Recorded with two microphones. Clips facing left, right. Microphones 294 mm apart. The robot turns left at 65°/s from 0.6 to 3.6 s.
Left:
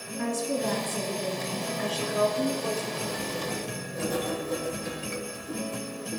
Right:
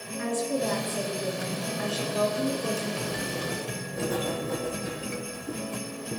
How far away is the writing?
About 3.5 m.